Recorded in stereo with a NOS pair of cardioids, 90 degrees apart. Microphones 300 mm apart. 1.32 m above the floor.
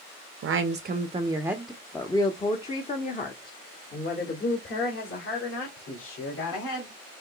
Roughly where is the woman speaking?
Ahead right.